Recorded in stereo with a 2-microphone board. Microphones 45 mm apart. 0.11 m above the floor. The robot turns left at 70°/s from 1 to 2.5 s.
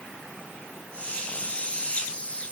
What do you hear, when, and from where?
Only background noise.